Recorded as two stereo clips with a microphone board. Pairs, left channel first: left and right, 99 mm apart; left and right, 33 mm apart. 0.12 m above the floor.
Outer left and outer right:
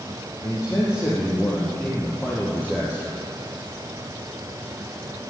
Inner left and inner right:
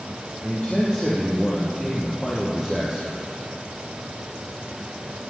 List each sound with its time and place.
0.4 s a man speaking: 40° left (ahead or behind), 4.5 m; by 3.2 s centre (ahead or behind), 3.5 m